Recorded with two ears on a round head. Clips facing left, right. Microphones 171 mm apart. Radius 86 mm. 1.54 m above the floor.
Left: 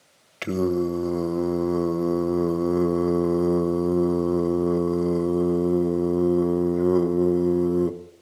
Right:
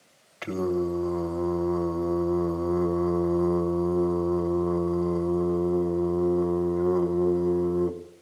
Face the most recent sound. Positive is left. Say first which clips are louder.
# left 3 dB
turn(degrees=35)  # may be behind; listen again after turning